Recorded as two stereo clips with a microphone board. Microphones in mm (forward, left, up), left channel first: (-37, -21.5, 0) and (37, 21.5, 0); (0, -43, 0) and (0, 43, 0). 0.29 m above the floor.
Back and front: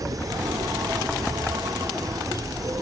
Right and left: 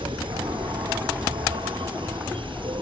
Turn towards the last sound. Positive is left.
turn(degrees=80)